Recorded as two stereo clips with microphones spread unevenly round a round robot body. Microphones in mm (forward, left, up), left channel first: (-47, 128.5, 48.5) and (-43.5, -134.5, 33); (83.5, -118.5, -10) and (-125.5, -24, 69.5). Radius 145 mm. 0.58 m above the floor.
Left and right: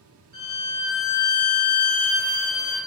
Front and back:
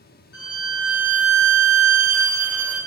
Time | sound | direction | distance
0.3 | a violin | 65° right | 1.9 m